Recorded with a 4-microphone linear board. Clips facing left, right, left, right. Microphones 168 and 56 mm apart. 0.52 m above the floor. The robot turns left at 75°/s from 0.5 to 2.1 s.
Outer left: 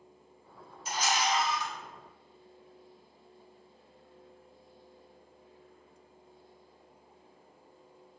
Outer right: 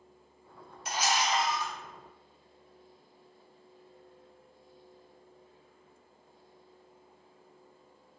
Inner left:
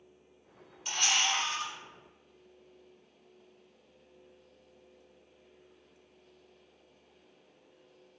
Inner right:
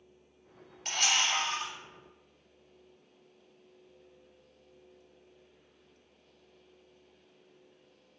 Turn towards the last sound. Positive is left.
turn(degrees=-165)